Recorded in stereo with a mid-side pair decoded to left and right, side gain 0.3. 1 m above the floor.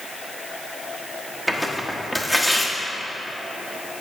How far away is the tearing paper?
About 1.2 m.